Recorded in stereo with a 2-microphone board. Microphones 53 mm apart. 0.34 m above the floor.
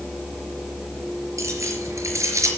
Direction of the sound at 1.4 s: 75° right (ahead or behind).